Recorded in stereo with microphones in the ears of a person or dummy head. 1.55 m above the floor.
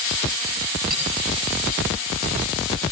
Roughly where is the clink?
Right.